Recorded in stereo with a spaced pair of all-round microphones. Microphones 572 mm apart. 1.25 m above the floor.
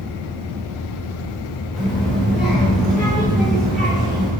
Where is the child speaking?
Centre (ahead or behind), 2.5 m.